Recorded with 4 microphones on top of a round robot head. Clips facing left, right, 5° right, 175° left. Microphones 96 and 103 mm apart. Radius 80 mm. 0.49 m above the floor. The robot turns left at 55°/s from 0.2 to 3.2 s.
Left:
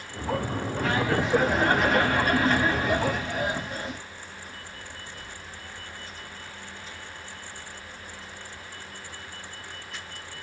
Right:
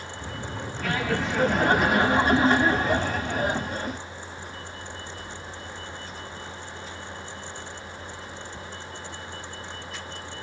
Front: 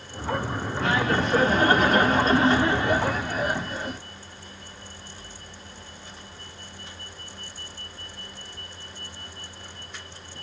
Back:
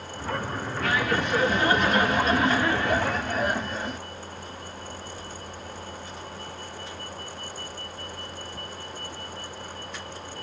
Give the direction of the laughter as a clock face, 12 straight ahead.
11 o'clock.